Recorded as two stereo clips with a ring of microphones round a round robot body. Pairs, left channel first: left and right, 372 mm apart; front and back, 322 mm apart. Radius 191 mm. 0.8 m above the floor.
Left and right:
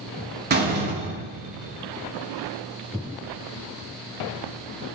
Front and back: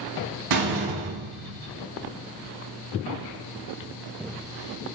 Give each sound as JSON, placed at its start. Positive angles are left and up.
{"t": 0.5, "sound": "a door slam", "azimuth_deg": -155, "distance_m": 6.0}